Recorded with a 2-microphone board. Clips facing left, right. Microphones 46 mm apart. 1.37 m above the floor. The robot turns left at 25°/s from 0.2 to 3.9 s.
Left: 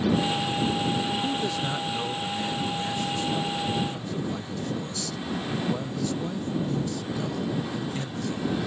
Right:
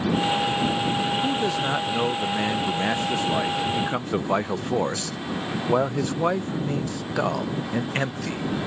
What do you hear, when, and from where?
1.2 s a man speaking: 15° right; by 8.5 s 85° right